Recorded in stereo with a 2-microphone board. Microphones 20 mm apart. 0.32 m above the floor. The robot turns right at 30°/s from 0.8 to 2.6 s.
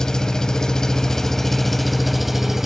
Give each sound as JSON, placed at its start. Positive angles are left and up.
{"t": 0.0, "sound": "an engine running", "azimuth_deg": 150, "distance_m": 1.0}